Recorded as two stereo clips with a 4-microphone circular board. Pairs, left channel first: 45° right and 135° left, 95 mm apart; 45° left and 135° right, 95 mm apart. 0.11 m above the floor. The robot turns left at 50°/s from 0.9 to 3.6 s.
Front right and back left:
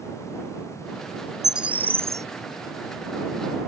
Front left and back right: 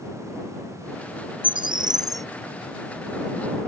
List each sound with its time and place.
1.4 s a bird: 140° right; by 2.3 s straight behind